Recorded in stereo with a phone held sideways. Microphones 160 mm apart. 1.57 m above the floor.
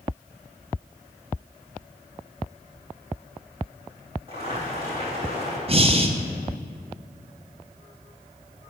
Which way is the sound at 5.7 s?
40° right (ahead or behind).